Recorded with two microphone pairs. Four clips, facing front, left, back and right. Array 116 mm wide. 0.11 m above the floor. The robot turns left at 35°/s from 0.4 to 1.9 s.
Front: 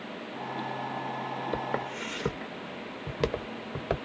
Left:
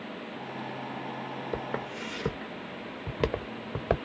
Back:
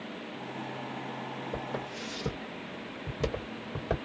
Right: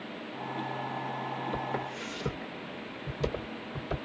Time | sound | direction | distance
1.5 | footsteps | 20° left | 1.3 m